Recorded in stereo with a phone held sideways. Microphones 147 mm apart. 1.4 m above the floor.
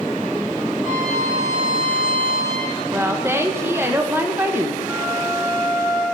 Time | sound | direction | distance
0.8 | a violin | 65° right (ahead or behind) | 2 m
2.9 | a woman speaking | 15° right (ahead or behind) | 0.6 m
4.9 | a flute | 15° right (ahead or behind) | 3.5 m